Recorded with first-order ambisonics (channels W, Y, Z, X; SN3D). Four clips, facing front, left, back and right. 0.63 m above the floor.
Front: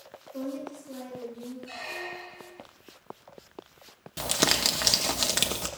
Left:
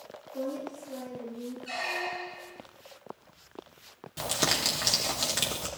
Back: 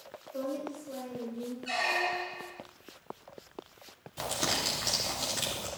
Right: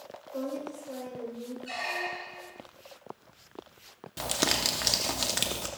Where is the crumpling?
10° right, 0.9 m.